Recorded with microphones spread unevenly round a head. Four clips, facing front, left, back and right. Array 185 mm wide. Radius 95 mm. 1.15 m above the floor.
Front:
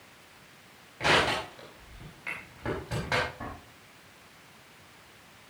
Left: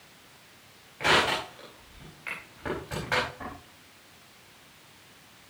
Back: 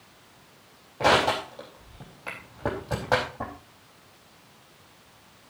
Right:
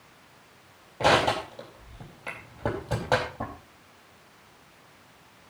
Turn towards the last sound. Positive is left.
turn(degrees=-135)